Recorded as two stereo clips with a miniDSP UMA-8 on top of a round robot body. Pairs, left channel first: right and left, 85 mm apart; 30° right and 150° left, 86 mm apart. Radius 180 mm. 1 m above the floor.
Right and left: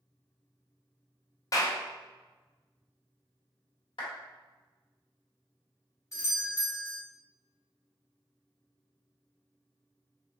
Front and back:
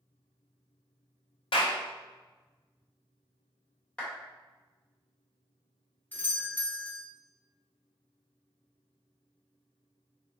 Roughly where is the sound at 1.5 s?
Ahead right.